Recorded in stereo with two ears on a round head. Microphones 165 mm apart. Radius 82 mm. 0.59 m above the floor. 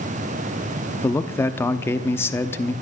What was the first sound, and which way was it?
A man speaking, 15° left (ahead or behind).